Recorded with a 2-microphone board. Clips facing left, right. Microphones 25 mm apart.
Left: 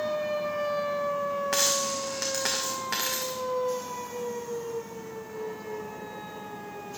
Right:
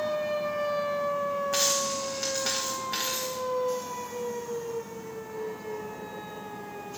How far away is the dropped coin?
About 2 m.